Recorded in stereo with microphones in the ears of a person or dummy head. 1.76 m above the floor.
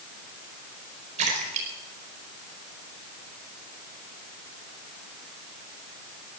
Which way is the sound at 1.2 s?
35° right (ahead or behind).